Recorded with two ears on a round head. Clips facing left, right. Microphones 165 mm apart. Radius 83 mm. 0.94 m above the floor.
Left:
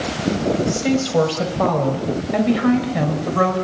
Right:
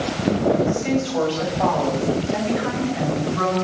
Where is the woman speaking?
55° left (ahead or behind), 6.5 m; by 3.5 s 75° left (ahead or behind), 5.5 m.